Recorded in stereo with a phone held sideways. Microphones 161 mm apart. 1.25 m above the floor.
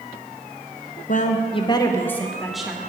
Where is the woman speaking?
55° left (ahead or behind), 0.7 m; by 2.8 s 5° right (ahead or behind), 1.2 m.